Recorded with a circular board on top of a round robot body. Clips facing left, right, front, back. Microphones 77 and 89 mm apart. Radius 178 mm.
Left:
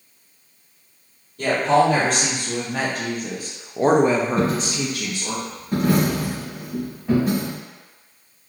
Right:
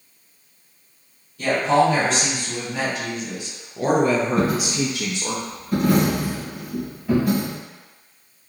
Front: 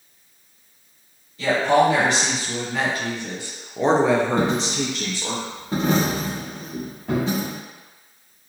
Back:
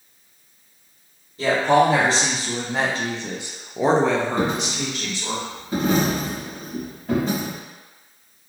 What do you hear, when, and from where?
1.4 s a woman speaking: 125° left, 1.7 m; by 5.4 s 40° right, 0.8 m
4.4 s a dropped coin: 30° left, 1.2 m